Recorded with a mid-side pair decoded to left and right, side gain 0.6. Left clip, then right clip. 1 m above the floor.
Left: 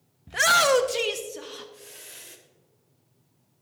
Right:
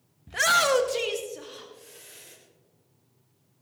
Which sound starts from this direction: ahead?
A shout, at 0.3 s.